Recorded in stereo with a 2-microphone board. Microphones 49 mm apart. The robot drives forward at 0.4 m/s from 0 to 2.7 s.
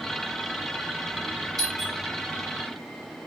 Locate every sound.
1.6 s a doorbell: 5° left (ahead or behind), 1.2 m